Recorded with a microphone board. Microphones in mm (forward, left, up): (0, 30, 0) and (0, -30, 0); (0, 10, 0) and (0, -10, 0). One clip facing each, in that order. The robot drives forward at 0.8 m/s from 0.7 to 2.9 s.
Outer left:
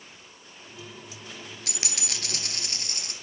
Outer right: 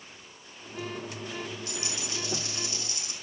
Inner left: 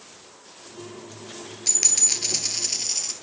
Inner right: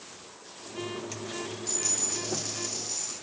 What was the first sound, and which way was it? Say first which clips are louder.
A dropped coin: outer right 1 dB, inner left 11 dB; 85° left.